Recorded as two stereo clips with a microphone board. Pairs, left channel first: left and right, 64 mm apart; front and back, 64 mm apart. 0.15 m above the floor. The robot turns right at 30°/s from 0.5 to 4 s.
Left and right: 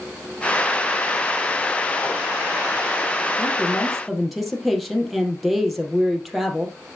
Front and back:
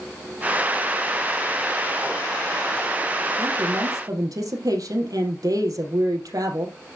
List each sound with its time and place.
3.4 s a woman speaking: 160° left, 4 m; by 7.0 s straight behind, 4 m